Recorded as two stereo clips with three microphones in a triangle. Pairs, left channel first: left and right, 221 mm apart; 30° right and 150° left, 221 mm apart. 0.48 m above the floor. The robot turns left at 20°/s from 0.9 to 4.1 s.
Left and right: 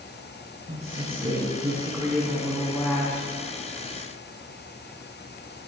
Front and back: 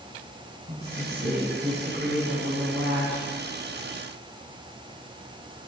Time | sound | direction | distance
0.7 | a woman speaking | 150° right | 4 m